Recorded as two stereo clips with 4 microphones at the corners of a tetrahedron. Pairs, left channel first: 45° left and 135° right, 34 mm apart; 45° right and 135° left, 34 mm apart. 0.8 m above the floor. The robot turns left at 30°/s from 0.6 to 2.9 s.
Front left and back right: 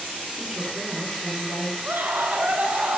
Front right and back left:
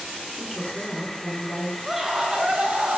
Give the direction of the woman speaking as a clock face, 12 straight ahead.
4 o'clock.